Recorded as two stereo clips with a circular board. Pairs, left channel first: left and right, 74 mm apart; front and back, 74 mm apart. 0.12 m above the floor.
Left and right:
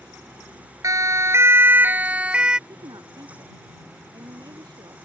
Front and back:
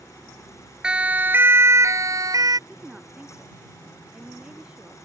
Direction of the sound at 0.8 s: 105° right.